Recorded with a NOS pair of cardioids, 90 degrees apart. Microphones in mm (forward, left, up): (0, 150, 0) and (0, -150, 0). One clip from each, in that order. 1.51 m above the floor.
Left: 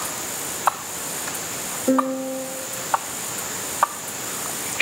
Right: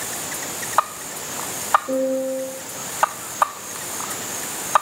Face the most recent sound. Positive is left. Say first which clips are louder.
# even
turn(degrees=65)